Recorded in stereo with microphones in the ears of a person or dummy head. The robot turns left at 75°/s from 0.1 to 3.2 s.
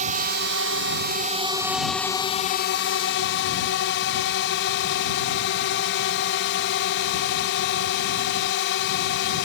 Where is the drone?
40° right; by 9.5 s 90° left.